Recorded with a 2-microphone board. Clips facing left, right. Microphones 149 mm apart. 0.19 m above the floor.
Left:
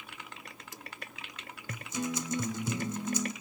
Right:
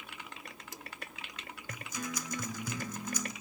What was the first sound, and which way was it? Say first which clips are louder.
A guitar: left 6 dB; 25° left (ahead or behind).